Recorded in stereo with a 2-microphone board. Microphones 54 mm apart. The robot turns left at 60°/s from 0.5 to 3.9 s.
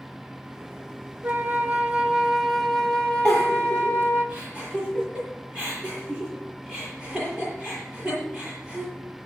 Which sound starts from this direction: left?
A giggle, at 3.2 s.